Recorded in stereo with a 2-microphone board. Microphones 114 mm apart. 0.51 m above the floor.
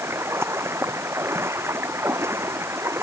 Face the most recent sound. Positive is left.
turn(degrees=-20)  # may be behind; listen again after turning